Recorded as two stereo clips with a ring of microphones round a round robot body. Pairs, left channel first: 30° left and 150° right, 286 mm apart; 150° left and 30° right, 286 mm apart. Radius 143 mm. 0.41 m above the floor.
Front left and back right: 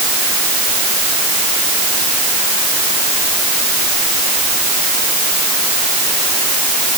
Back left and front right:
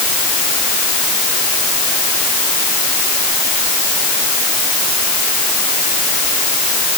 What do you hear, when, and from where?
Only background noise.